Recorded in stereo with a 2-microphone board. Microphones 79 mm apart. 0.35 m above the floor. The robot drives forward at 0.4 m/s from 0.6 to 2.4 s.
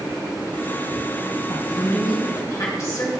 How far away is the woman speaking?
About 3 m.